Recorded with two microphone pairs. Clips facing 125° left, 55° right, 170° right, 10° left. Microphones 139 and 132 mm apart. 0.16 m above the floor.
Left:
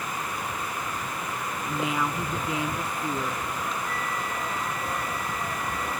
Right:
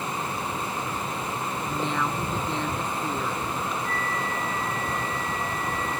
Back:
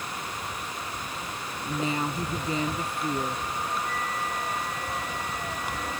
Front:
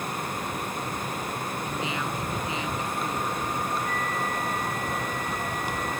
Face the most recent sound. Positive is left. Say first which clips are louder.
# right 2 dB, front 2 dB
turn(degrees=-90)